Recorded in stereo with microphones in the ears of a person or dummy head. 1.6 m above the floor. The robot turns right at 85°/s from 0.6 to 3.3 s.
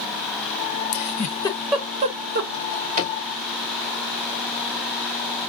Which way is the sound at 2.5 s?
Centre (ahead or behind).